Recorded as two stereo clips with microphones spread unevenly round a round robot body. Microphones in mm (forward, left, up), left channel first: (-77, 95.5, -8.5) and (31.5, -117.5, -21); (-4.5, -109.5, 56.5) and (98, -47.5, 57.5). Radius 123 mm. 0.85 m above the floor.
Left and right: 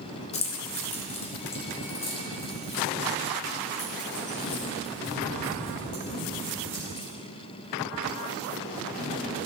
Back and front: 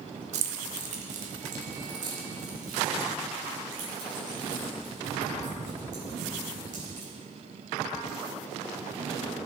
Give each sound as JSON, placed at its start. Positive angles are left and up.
{"t": 0.3, "sound": "keys jangling", "azimuth_deg": 50, "distance_m": 0.7}